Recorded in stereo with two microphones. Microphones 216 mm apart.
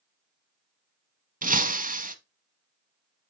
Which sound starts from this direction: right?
Breaking glass, at 1.4 s.